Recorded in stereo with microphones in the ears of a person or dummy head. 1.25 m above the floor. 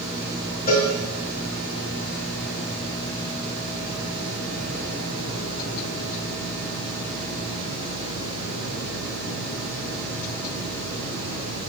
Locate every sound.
0.7 s a cowbell: 45° left (ahead or behind), 5.5 m